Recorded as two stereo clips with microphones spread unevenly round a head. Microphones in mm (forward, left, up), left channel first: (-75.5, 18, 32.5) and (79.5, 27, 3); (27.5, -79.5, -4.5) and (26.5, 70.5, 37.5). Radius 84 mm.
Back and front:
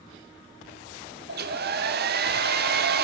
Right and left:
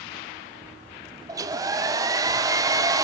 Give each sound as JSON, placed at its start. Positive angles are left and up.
{"t": 1.3, "sound": "a hair dryer", "azimuth_deg": 30, "distance_m": 1.2}